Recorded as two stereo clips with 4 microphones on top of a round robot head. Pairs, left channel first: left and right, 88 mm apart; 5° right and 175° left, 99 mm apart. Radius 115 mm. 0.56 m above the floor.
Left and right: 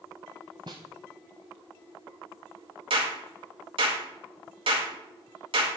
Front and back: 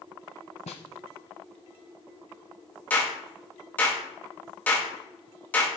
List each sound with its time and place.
0.7 s a snare drum: 35° right, 0.5 m
2.9 s a clap: 80° right, 3 m